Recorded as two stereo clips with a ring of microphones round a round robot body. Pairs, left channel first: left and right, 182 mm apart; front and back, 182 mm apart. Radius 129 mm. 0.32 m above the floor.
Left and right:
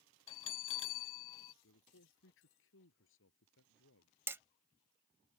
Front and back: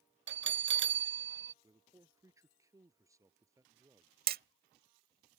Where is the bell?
160° left.